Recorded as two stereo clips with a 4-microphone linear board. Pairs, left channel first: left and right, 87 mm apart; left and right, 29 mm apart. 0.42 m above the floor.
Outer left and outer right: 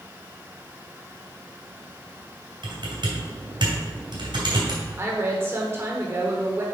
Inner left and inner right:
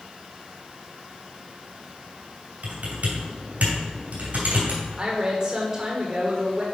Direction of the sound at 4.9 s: 30° right (ahead or behind).